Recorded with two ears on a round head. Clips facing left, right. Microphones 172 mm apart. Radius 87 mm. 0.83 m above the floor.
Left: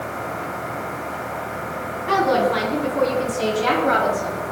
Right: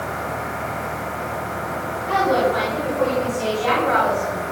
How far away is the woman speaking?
About 8 m.